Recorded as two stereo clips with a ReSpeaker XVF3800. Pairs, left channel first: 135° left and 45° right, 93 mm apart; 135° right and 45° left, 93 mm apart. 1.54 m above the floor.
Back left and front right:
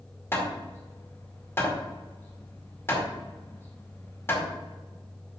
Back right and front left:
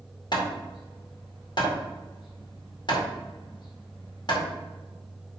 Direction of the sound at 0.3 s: 165° right.